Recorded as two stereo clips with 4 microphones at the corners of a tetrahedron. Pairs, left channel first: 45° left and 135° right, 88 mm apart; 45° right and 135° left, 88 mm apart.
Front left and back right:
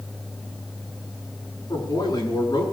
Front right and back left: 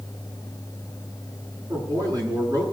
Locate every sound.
1.7 s a man speaking: 90° left, 6.5 m